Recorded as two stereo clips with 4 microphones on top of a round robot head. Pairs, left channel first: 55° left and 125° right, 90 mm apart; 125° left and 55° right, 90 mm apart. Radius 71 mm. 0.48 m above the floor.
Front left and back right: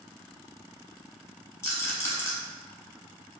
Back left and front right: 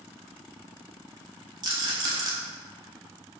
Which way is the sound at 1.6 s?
10° right.